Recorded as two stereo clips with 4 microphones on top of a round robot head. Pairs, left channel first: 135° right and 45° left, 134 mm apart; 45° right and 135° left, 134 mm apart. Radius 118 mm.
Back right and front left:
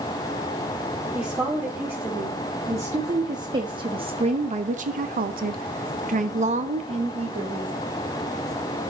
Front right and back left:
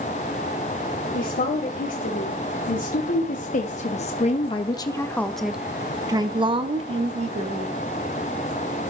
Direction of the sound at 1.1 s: 35° right.